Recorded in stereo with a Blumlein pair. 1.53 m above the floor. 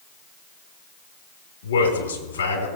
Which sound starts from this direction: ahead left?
A man speaking, at 1.6 s.